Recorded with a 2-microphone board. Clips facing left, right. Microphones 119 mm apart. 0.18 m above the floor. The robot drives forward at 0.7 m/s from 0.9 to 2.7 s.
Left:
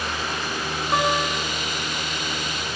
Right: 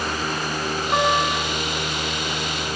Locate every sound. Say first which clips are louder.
0.9 s a guitar: right 2 dB; 5° left (ahead or behind), 2.5 m